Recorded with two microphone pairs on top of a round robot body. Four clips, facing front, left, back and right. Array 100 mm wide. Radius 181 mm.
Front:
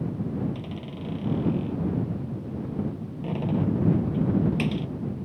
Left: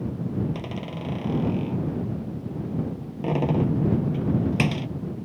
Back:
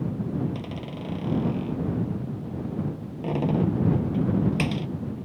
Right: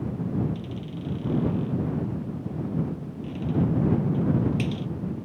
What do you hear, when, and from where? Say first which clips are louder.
0.5 s a door slam: left 3 dB, back 2 dB; 110° left